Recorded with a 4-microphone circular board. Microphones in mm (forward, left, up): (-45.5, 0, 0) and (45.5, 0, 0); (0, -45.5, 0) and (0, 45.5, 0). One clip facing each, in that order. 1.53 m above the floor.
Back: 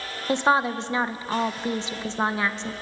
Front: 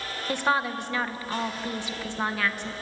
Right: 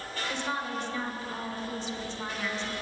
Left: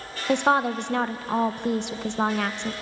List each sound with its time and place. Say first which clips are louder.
0.3 s a woman speaking: back 5 dB, left 13 dB; 115° left, 1.3 m